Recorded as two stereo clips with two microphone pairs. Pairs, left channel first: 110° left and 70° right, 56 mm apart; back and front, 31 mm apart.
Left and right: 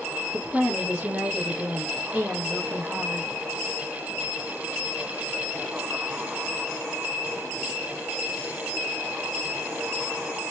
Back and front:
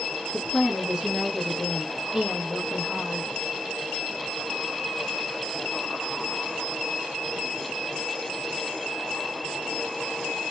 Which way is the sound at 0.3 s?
45° right.